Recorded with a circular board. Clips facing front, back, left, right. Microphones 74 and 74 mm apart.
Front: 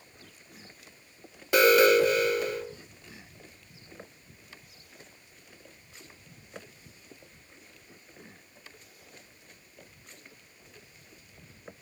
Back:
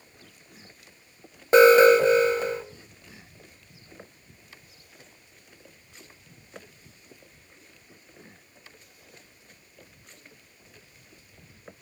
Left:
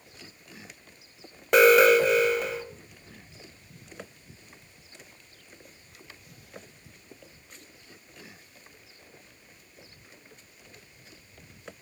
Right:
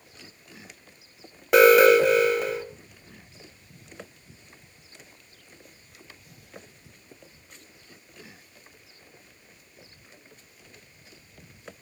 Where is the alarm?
170° right, 2.0 m.